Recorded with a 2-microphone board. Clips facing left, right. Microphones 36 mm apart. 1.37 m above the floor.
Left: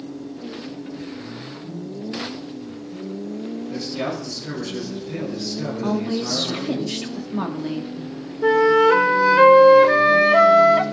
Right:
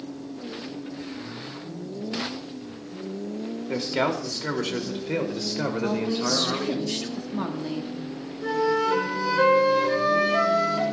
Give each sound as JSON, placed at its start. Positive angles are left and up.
{"t": 3.7, "sound": "a man speaking", "side_deg": -80, "distance_m": 2.5}
{"t": 5.8, "sound": "a woman speaking", "side_deg": 15, "distance_m": 1.4}
{"t": 8.4, "sound": "a flute", "side_deg": 55, "distance_m": 0.8}